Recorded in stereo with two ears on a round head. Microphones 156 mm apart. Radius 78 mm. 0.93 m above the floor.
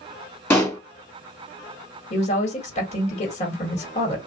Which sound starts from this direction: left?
A woman speaking, at 2.1 s.